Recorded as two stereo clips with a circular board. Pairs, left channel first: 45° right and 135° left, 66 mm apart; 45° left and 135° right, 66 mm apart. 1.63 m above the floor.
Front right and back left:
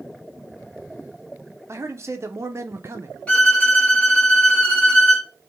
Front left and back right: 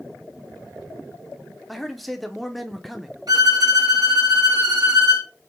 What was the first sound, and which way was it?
A man speaking, 135° left.